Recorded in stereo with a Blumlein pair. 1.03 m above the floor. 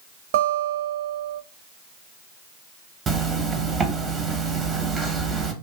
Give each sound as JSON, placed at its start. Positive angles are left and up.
{"t": 0.3, "sound": "a guitar", "azimuth_deg": -55, "distance_m": 0.5}
{"t": 3.1, "sound": "a zipper", "azimuth_deg": -15, "distance_m": 0.5}